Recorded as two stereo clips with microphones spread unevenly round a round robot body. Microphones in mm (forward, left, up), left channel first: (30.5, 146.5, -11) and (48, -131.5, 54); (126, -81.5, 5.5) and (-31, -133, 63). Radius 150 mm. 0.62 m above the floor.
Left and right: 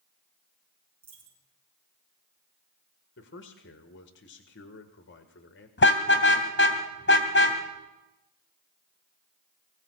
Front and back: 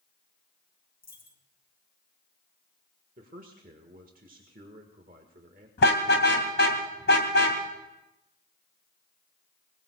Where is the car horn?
45° left, 2.5 m.